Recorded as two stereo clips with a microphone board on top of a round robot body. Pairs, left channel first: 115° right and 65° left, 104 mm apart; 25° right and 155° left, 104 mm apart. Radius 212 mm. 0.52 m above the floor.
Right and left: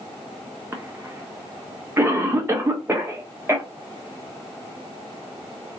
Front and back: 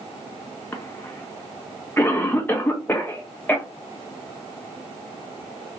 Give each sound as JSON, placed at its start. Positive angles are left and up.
{"t": 0.7, "sound": "a cough", "azimuth_deg": 25, "distance_m": 0.8}